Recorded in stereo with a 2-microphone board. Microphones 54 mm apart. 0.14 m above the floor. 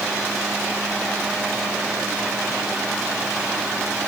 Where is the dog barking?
No dog barking in this recording.